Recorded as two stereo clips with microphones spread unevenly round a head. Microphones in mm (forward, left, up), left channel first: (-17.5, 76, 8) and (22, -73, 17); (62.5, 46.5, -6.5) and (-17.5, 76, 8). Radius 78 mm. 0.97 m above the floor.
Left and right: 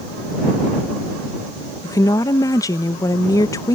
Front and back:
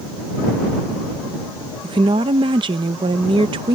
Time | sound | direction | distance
1.8 | a woman speaking | 165° left | ?